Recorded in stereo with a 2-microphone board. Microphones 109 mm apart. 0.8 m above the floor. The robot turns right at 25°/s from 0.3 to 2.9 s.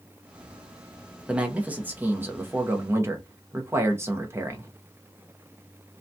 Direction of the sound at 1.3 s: 10° right (ahead or behind).